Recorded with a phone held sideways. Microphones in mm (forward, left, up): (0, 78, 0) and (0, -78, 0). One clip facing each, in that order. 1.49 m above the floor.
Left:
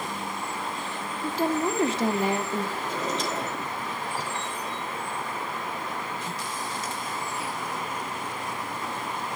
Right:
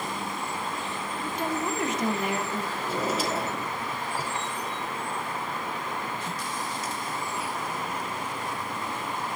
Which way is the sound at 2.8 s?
10° right (ahead or behind).